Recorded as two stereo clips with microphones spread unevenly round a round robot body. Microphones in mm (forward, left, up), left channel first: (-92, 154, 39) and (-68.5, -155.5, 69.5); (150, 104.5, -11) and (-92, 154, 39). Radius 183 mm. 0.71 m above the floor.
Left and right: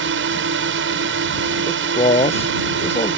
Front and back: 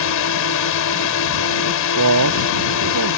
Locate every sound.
0.0 s a drone: 30° right
1.7 s a man speaking: 165° left